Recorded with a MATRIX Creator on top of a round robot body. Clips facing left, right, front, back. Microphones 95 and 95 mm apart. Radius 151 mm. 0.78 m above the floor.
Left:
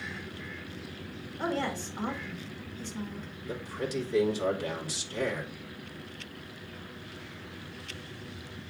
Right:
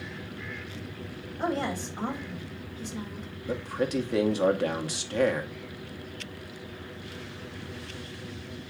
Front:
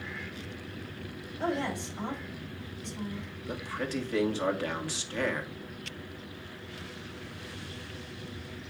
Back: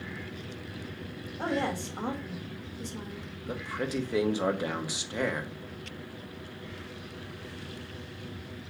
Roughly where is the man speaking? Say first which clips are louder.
Right 6 dB, back 1 dB; right.